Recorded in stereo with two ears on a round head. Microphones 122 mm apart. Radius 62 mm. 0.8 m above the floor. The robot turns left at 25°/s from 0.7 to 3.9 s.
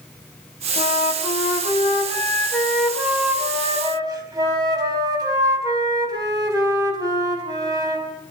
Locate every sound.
0.8 s a flute: 50° left, 5 m; by 8.1 s 25° right, 5 m